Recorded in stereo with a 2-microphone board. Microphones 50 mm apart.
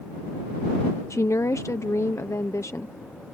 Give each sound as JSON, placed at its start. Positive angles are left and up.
{"t": 1.1, "sound": "a woman speaking", "side_deg": 80}